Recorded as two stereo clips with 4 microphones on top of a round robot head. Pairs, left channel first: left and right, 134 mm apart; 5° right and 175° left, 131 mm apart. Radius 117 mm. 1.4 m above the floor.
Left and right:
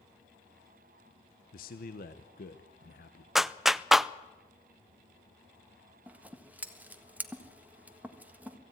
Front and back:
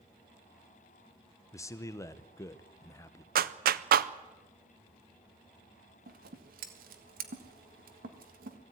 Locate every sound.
1.5 s a man speaking: 60° left, 0.8 m
3.4 s a clap: straight behind, 0.5 m
6.1 s scissors: 170° right, 1.6 m